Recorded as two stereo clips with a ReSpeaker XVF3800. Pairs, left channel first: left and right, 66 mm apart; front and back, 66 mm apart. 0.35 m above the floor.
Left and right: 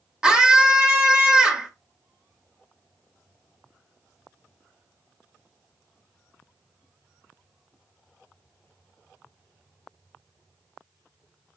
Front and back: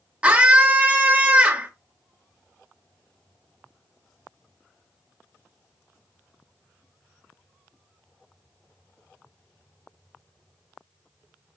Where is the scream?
150° right, 0.9 m.